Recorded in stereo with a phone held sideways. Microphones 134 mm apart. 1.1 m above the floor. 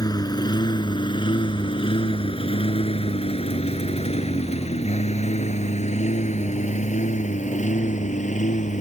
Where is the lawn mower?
30° left (ahead or behind); by 8.8 s 70° left (ahead or behind).